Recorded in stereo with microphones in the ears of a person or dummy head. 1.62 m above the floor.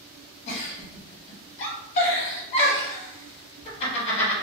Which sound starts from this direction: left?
A giggle, at 0.5 s.